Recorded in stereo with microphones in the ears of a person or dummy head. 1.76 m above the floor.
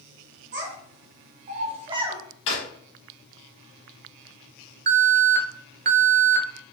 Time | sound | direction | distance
0.5 | a child speaking | 55° right (ahead or behind) | 1.4 m
2.5 | a drawer | 30° left (ahead or behind) | 1.2 m
4.9 | an alarm | 45° right (ahead or behind) | 0.6 m